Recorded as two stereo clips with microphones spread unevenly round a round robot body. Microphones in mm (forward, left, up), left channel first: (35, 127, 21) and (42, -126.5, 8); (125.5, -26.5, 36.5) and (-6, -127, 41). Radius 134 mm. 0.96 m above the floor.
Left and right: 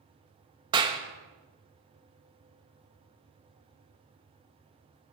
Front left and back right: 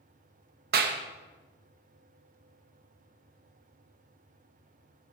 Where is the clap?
160° right, 1.1 m.